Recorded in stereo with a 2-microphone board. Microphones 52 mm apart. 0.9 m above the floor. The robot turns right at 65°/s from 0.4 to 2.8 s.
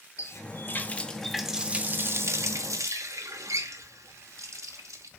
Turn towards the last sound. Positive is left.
turn(degrees=-85)